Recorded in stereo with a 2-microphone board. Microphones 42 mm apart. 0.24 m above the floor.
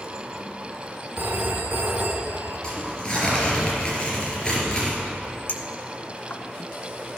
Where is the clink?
45° left (ahead or behind), 1.2 m.